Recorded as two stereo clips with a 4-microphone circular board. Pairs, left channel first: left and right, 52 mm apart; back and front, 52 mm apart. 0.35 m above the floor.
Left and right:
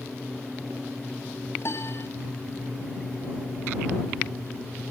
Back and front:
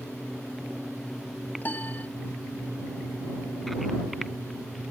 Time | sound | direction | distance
1.6 | a piano | 120° left | ?